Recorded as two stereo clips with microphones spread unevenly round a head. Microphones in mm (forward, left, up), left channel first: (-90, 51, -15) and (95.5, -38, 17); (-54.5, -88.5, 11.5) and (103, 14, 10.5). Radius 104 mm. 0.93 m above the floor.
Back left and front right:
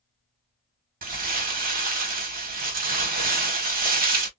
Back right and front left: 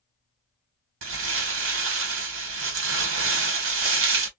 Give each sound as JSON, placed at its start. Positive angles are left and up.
{"t": 1.0, "sound": "crumpling", "azimuth_deg": 20, "distance_m": 1.1}